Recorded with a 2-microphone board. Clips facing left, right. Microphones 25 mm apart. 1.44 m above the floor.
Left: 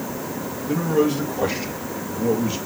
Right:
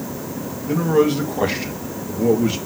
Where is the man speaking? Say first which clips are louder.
Right 3 dB; 45° right (ahead or behind), 2 m; by 2.7 s 75° right (ahead or behind), 2.5 m.